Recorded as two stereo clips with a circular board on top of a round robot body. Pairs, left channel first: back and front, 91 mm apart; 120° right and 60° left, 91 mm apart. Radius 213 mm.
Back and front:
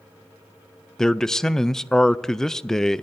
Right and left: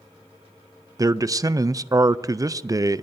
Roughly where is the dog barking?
No dog barking in this recording.